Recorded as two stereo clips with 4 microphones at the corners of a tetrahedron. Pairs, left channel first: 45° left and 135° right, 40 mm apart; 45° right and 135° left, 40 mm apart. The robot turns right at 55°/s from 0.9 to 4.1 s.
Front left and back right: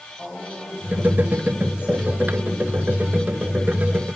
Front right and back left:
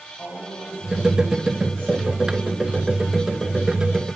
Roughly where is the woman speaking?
Ahead right.